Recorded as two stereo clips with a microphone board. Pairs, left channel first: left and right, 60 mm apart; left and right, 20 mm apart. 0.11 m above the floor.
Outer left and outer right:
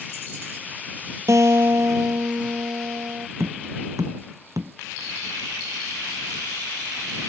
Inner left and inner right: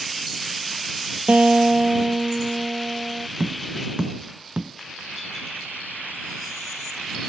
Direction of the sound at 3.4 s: 65° right (ahead or behind).